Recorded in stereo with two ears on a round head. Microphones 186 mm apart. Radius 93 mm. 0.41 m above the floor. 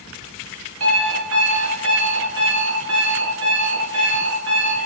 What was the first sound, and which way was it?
An alarm clock, 85° right.